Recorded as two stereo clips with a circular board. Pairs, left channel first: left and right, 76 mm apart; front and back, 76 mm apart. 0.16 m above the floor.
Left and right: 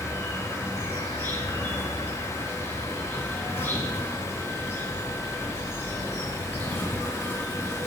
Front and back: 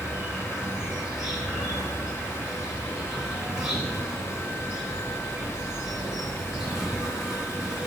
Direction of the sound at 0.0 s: 110° left.